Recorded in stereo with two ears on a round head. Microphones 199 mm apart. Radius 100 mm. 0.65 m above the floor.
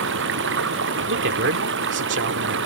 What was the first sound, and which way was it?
Running water, 55° right (ahead or behind).